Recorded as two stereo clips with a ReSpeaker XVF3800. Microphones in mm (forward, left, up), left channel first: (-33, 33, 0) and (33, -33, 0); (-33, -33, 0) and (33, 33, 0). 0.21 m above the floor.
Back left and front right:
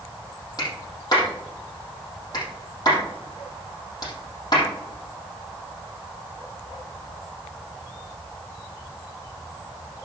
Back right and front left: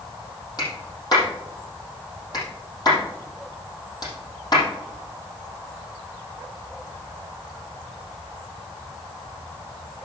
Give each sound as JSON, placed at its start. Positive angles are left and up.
{"t": 0.6, "sound": "a clap", "azimuth_deg": 180, "distance_m": 5.5}